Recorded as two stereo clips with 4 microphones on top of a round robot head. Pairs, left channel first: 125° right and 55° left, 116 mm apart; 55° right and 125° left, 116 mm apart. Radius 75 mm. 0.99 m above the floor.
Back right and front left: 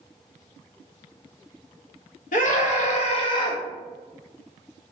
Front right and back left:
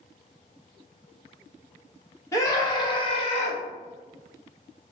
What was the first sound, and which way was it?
A scream, 120° right.